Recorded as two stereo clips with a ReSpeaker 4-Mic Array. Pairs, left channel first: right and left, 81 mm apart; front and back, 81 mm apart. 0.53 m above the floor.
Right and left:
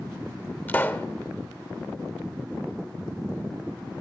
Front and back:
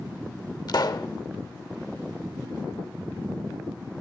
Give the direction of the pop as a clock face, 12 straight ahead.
1 o'clock.